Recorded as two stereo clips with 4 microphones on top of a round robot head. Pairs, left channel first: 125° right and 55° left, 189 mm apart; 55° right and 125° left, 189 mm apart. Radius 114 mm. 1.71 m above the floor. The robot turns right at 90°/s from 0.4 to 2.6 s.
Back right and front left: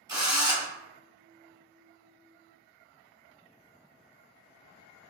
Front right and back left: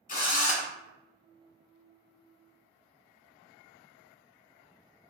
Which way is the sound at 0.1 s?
15° right.